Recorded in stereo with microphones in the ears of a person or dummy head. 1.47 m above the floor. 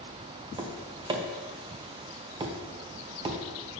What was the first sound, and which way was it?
Tapping, 25° right (ahead or behind).